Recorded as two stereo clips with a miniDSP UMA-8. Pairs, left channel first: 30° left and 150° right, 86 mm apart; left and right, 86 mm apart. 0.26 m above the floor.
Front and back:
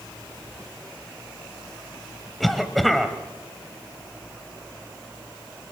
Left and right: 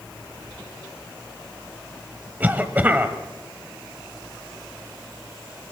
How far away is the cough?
About 1.0 m.